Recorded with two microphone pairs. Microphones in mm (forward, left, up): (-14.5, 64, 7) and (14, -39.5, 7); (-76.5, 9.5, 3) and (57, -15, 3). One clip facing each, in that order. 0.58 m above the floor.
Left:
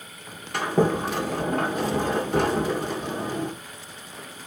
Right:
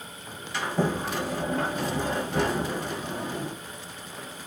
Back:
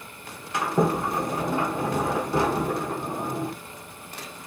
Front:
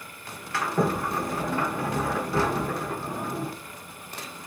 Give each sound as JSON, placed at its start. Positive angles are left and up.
{"t": 0.5, "sound": "a sliding door", "azimuth_deg": 105, "distance_m": 1.7}